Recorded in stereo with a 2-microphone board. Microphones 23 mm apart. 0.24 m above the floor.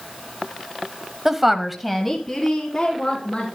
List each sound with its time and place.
1.2 s a woman speaking: 15° right (ahead or behind), 1.0 m; by 3.5 s 15° left (ahead or behind), 3 m